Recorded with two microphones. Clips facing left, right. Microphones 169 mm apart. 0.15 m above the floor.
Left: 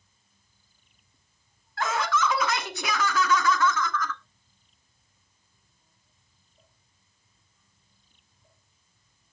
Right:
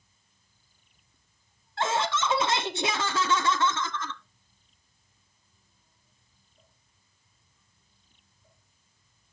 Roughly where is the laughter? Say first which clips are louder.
Left 1 dB; right.